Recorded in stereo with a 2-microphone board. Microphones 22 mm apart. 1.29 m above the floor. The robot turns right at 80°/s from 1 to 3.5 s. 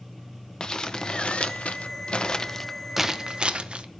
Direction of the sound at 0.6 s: 35° left (ahead or behind).